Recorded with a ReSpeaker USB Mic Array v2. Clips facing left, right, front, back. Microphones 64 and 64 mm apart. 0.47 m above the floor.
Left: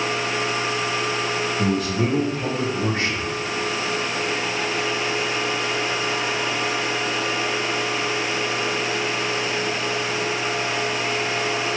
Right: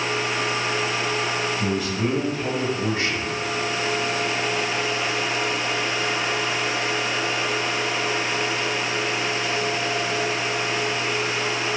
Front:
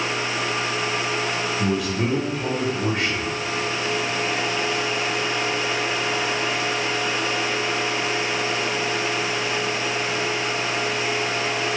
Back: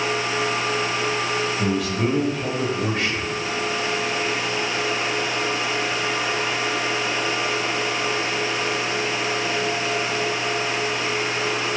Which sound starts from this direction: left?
A man speaking, at 1.6 s.